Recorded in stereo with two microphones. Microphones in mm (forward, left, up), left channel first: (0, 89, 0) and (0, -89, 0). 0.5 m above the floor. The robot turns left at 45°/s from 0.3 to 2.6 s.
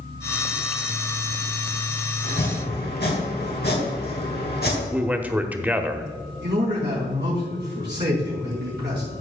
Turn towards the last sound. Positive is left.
turn(degrees=-70)  # may be behind; listen again after turning